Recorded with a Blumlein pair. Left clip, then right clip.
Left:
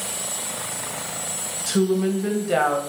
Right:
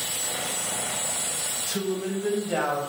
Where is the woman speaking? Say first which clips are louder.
Left 11 dB; 20° left, 0.8 m.